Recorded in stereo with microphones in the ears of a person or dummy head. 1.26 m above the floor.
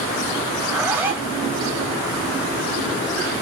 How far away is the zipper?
About 2 m.